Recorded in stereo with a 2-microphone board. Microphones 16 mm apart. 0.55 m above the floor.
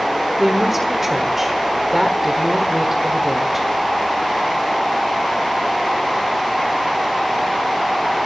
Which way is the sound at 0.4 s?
20° right (ahead or behind).